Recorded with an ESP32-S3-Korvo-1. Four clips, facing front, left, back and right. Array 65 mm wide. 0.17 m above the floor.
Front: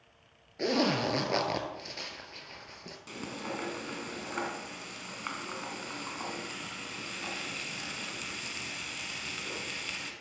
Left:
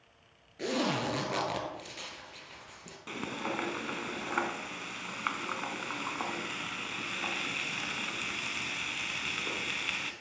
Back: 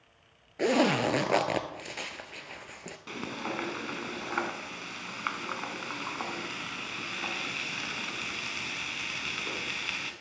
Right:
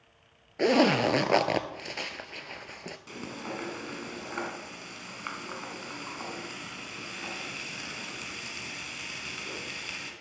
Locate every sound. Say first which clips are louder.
0.6 s a zipper: right 9 dB, back 3 dB; 110° right, 0.8 m
3.1 s frying: left 4 dB, back 3 dB; 140° left, 1.1 m